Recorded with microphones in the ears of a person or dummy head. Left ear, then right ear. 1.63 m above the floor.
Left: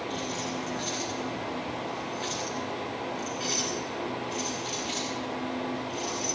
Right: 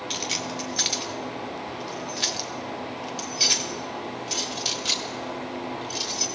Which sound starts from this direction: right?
Keys jangling, at 0.1 s.